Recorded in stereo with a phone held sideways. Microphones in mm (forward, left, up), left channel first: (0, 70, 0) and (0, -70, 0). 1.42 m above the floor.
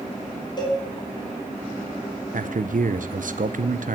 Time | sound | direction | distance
0.6 | a cowbell | 35° left (ahead or behind) | 4 m
2.3 | a man speaking | 70° right (ahead or behind) | 0.7 m